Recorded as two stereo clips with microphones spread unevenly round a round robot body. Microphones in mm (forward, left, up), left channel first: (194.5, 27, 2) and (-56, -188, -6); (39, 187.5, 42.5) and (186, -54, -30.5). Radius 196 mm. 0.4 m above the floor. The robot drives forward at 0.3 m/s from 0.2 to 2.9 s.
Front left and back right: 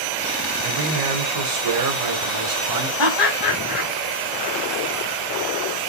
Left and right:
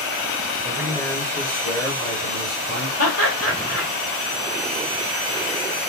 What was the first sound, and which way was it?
A man speaking, 135° right.